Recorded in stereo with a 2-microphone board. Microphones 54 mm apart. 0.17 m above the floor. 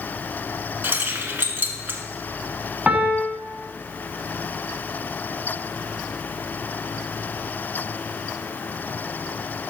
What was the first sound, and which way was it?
Keys jangling, 40° right (ahead or behind).